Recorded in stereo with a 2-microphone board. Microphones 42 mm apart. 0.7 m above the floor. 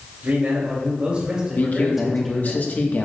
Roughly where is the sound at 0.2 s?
Right.